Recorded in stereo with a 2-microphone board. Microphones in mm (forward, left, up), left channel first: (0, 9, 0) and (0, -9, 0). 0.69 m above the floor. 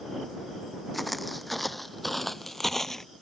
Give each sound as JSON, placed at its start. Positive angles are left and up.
{"t": 0.9, "sound": "footsteps", "side_deg": 5}